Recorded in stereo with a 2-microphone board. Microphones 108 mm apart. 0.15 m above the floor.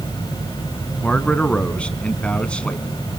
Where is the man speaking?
10° left (ahead or behind), 1.4 m.